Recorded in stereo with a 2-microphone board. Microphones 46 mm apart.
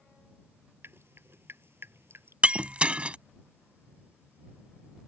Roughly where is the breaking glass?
Right.